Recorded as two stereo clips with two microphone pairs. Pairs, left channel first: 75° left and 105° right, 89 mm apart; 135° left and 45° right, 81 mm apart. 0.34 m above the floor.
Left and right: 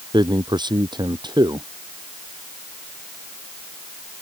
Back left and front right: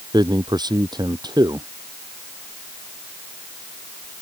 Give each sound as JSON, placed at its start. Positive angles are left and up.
{"t": 0.1, "sound": "a man speaking", "azimuth_deg": -70}